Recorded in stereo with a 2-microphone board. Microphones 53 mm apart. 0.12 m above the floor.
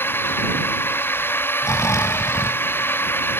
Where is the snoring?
75° left (ahead or behind).